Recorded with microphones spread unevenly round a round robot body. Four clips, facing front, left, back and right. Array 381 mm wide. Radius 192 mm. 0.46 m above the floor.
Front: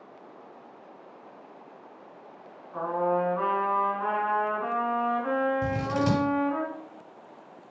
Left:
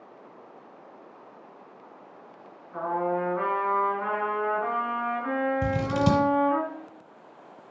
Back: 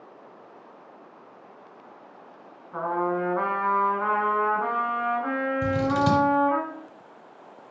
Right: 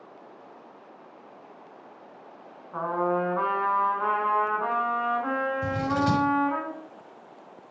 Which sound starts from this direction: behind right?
A trumpet, at 2.7 s.